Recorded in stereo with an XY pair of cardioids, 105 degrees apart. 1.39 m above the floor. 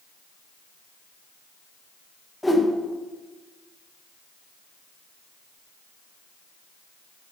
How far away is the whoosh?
About 1.1 m.